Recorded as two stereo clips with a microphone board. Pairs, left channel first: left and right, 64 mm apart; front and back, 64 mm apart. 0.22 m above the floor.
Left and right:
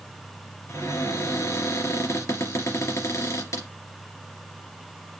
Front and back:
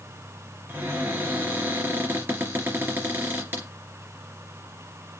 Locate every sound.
0.7 s a cupboard door: 125° left, 3 m